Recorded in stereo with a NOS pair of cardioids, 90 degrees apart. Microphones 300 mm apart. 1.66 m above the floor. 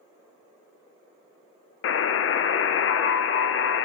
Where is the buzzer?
50° left, 0.6 m.